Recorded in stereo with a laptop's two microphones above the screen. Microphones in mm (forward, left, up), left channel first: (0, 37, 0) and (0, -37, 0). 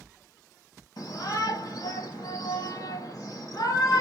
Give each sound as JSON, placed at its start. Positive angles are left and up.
{"t": 1.0, "sound": "a shout", "side_deg": 60, "distance_m": 1.4}